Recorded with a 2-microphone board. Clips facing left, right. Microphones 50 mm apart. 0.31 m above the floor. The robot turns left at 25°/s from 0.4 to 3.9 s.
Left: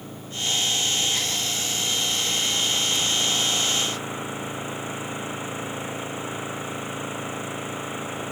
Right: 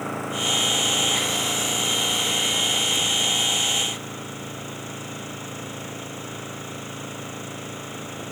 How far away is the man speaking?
I don't hear a man speaking.